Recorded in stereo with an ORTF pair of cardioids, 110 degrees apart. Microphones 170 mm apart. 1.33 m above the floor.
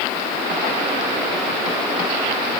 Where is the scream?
No scream in this recording.